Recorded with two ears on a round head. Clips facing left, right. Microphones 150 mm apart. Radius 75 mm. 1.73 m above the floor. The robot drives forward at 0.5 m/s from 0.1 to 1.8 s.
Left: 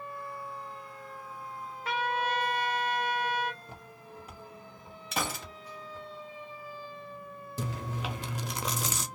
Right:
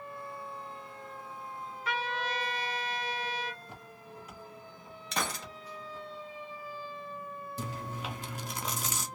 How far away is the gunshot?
About 0.6 m.